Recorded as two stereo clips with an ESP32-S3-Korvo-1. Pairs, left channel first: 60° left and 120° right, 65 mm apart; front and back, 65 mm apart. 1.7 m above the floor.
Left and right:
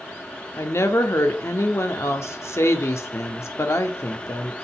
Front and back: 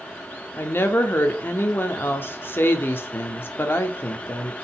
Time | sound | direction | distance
0.6 | a woman speaking | 40° left | 0.5 m